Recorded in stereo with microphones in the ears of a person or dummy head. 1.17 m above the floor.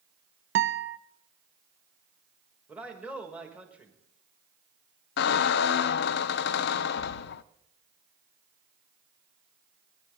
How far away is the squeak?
About 0.5 m.